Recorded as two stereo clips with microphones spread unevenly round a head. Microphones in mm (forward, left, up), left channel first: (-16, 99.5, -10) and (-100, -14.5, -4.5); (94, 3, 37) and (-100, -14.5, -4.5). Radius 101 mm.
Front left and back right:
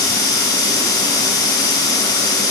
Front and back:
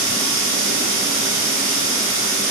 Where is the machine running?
110° left, 3.5 m.